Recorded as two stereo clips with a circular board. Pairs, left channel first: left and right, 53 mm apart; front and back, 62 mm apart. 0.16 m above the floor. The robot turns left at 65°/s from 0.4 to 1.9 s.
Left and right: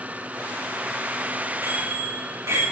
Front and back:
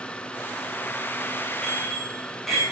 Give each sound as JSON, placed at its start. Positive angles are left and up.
{"t": 1.6, "sound": "a bicycle bell", "azimuth_deg": -70, "distance_m": 9.5}